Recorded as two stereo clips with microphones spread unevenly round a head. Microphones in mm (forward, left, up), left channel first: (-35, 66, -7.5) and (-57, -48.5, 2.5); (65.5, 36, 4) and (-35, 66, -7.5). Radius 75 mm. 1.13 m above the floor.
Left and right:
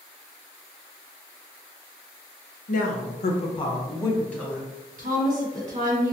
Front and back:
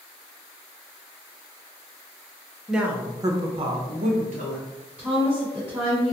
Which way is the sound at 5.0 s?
110° right.